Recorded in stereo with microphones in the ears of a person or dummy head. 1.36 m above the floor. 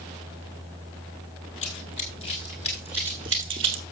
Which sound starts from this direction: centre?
Running footsteps, at 1.6 s.